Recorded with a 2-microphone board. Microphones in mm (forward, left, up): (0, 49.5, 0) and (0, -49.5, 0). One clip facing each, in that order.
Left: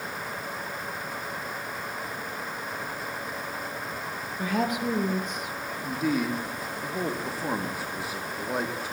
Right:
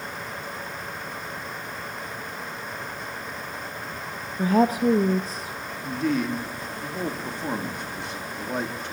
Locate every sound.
4.4 s a woman speaking: 35° right (ahead or behind), 0.6 m
5.8 s a man speaking: 5° left (ahead or behind), 1.0 m